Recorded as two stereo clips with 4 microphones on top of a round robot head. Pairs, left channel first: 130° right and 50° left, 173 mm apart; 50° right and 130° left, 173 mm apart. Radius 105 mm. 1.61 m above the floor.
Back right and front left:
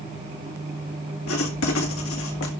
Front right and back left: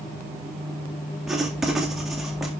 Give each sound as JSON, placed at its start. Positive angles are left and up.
{"t": 1.3, "sound": "writing", "azimuth_deg": -140, "distance_m": 2.0}